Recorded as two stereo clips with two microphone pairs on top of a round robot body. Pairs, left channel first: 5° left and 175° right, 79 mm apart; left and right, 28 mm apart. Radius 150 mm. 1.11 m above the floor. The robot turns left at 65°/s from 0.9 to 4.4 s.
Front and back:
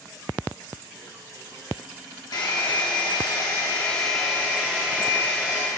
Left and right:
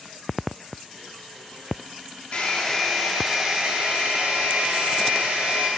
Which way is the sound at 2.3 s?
35° left.